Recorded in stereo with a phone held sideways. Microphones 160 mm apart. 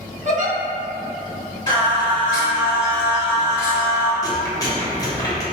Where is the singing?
25° left (ahead or behind), 1.3 m.